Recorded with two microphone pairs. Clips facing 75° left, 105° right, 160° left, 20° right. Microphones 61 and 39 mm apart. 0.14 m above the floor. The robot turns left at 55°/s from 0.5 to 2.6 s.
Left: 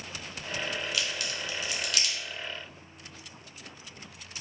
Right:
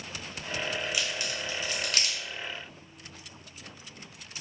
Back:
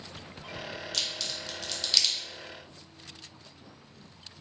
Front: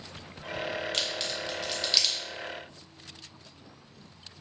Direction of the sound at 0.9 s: 40° right.